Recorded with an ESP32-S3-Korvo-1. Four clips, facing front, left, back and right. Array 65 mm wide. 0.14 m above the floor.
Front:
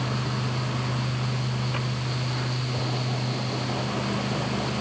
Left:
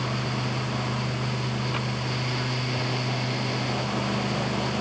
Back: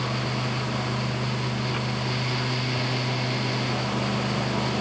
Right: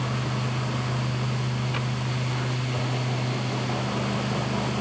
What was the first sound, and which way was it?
Only background noise.